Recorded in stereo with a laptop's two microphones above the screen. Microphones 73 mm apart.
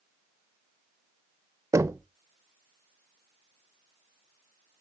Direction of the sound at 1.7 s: 40° right (ahead or behind).